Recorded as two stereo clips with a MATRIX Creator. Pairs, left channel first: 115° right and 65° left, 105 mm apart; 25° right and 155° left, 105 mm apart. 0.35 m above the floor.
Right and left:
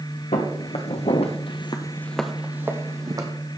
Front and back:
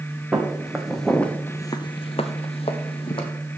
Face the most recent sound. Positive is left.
turn(degrees=15)